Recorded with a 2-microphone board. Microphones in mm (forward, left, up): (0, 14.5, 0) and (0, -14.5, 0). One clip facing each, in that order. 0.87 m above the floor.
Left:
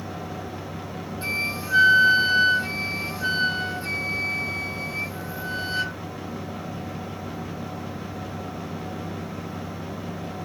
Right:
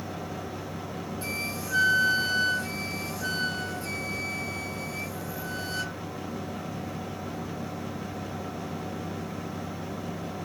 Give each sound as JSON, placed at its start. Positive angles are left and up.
{"t": 1.2, "sound": "a flute", "side_deg": 30}